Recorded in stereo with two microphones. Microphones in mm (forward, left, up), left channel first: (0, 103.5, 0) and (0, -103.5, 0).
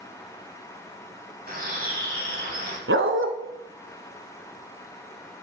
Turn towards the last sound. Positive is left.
turn(degrees=-70)  # may be behind; listen again after turning